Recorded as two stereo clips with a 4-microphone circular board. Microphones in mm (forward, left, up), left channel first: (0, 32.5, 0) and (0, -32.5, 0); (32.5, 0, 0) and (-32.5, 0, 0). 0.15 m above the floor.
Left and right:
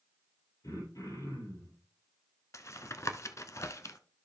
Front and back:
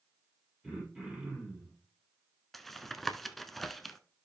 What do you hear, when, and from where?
0.6 s throat clearing: 100° left, 5 m
2.5 s tapping: 85° left, 0.7 m